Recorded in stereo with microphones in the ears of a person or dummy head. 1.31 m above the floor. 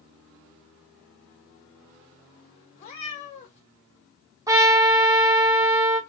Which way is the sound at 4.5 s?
20° right (ahead or behind).